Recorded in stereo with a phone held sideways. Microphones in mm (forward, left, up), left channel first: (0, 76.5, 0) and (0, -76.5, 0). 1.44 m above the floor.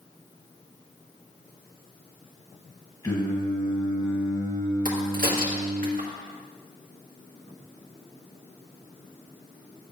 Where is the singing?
25° left (ahead or behind), 1.9 m.